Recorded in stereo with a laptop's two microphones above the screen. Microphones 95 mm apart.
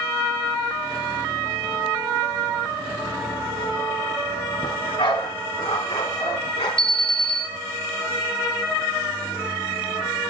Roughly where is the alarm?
Left.